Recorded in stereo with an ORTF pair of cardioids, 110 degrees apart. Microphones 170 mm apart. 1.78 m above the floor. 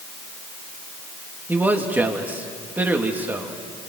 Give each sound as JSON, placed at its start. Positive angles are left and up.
{"t": 1.5, "sound": "a man speaking", "azimuth_deg": -10, "distance_m": 2.5}